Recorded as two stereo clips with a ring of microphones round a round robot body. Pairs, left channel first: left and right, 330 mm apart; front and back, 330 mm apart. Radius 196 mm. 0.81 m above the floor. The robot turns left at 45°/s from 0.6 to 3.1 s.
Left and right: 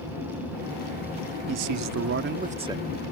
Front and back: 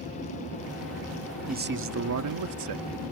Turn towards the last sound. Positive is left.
turn(degrees=175)